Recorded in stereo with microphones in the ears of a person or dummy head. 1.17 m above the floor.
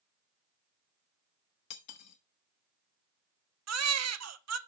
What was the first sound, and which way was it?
Cutlery clinking, 60° left (ahead or behind).